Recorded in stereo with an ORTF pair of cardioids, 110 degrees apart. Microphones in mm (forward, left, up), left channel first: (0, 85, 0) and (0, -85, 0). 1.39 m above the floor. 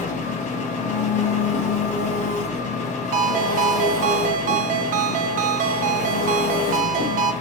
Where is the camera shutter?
I don't hear a camera shutter.